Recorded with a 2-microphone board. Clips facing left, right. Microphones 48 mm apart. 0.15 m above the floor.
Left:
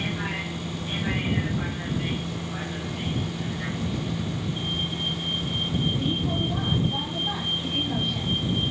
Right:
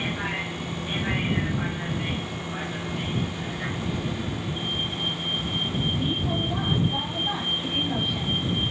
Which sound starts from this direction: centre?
A vehicle, at 0.0 s.